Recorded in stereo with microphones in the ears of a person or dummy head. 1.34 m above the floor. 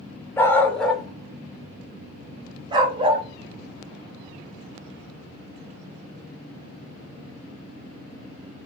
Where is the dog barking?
10° left (ahead or behind), 1.6 m; by 3.2 s 35° right (ahead or behind), 2 m.